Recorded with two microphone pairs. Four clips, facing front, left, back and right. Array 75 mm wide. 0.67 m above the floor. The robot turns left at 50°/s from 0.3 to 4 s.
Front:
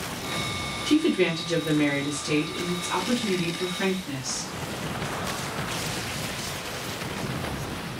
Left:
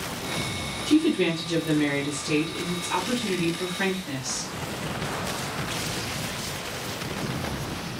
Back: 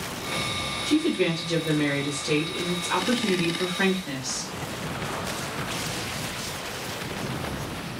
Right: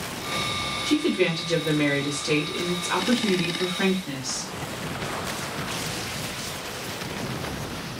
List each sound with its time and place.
0.9 s a woman speaking: 15° right, 1.2 m; by 4.5 s 175° right, 1.2 m